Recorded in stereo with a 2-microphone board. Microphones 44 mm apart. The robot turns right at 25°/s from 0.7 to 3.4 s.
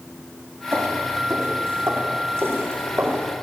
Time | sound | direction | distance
0.7 | footsteps | 70° right (ahead or behind) | 9.5 m